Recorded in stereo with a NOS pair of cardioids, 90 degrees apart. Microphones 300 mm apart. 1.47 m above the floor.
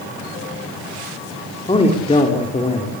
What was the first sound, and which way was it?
A man speaking, 20° left.